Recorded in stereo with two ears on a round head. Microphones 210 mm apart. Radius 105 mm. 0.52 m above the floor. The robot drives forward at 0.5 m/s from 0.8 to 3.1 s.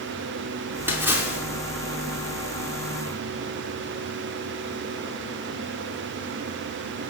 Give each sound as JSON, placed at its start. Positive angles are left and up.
{"t": 0.9, "sound": "a splash", "side_deg": -10, "distance_m": 3.5}